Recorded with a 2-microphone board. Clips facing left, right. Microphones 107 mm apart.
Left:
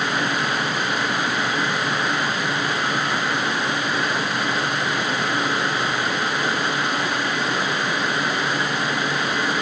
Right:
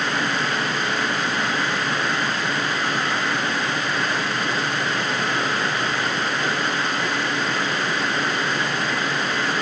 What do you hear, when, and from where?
Only background noise.